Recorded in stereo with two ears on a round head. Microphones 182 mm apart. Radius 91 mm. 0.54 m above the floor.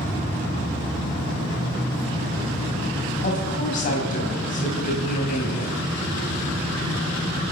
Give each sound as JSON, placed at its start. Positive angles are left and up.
{"t": 3.2, "sound": "a woman speaking", "side_deg": 45, "distance_m": 3.5}